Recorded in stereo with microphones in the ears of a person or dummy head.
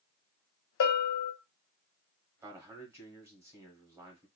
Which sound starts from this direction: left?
A bell, at 0.8 s.